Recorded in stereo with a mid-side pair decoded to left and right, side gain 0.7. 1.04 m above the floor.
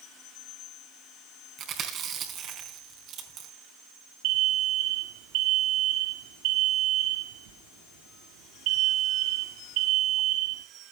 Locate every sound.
1.6 s chewing: 45° right, 4 m
4.2 s an alarm: 70° right, 1.9 m